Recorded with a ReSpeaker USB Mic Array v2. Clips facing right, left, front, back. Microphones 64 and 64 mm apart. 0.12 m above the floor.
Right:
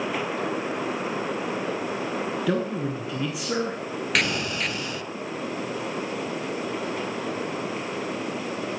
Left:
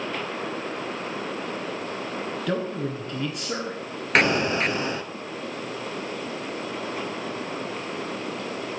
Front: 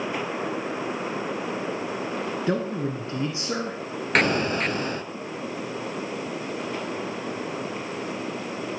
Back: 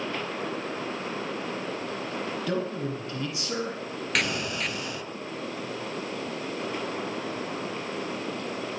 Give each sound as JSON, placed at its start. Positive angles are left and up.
{"t": 2.5, "sound": "a man speaking", "azimuth_deg": -10, "distance_m": 1.3}
{"t": 4.2, "sound": "an explosion", "azimuth_deg": 40, "distance_m": 0.5}